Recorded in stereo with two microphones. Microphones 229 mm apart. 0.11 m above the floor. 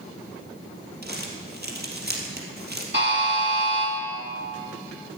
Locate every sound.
1.0 s crumpling: 45° right (ahead or behind), 3 m
2.9 s a buzzer: 50° right (ahead or behind), 5.5 m